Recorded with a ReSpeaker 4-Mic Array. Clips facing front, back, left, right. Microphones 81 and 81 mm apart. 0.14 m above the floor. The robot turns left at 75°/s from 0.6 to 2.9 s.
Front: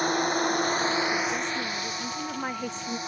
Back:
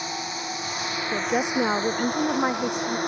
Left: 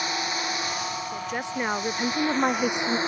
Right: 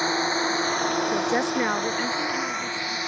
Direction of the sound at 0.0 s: 35° right.